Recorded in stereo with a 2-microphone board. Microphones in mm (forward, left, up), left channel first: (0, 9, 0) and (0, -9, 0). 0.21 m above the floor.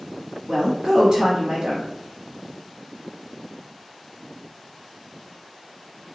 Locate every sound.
0.5 s a woman speaking: 45° right (ahead or behind), 1.3 m